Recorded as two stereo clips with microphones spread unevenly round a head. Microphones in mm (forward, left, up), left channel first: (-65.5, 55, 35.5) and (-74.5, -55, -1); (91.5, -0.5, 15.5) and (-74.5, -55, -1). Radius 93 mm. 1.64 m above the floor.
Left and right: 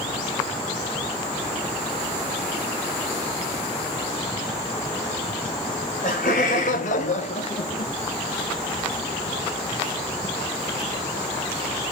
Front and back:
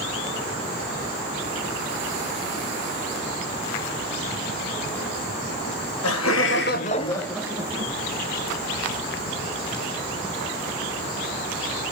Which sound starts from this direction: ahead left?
Laughter, at 5.7 s.